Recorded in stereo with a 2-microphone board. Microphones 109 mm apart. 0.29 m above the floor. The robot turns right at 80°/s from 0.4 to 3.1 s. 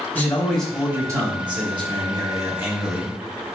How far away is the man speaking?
About 1.4 m.